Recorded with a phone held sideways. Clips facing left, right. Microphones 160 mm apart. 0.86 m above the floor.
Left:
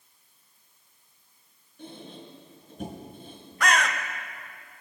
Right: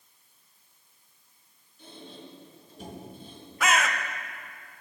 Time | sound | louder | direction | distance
1.8 | a squeak | left 3 dB | 60° left (ahead or behind) | 4 m
3.6 | a bird | left 1 dB | 5° right (ahead or behind) | 0.7 m